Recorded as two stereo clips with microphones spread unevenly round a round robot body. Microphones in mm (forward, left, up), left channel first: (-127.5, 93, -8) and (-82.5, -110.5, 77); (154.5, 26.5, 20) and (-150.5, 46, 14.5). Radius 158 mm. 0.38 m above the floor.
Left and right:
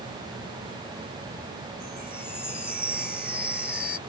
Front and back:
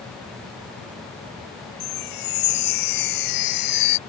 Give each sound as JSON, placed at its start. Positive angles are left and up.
{"t": 1.8, "sound": "a chime", "azimuth_deg": 15}